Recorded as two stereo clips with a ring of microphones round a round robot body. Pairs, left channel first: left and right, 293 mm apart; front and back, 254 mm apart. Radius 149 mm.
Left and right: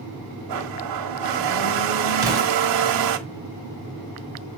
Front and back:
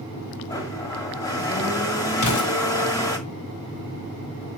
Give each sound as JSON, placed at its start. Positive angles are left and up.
{"t": 0.5, "sound": "a blender", "azimuth_deg": -80, "distance_m": 1.6}
{"t": 2.2, "sound": "an explosion", "azimuth_deg": -10, "distance_m": 3.5}